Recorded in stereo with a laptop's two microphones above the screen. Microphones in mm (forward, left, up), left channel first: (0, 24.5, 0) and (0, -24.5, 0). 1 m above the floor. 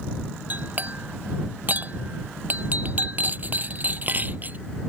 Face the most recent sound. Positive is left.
turn(degrees=-35)  # may be behind; listen again after turning